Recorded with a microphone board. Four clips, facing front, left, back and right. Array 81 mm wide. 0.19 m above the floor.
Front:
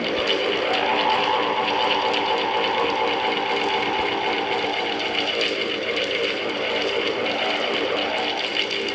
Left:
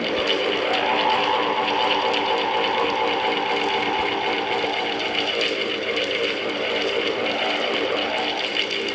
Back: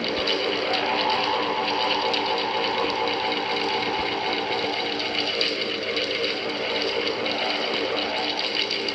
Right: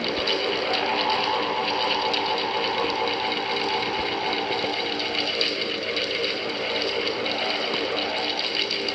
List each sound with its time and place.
Only background noise.